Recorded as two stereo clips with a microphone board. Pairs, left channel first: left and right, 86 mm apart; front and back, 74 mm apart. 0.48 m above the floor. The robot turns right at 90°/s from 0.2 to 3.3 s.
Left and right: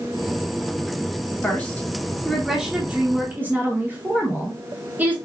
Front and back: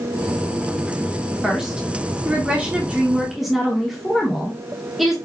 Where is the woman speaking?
95° left, 1.0 m; by 5.2 s 95° right, 1.0 m.